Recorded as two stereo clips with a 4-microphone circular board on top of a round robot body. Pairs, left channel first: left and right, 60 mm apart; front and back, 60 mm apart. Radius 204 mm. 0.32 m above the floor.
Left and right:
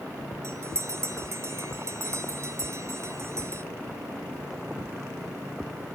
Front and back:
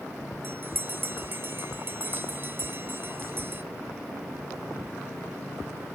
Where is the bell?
130° right, 2 m.